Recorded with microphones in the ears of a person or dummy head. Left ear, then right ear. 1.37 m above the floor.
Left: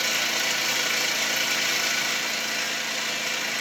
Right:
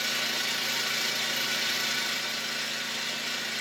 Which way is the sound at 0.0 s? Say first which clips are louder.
Left 4 dB; 30° left (ahead or behind).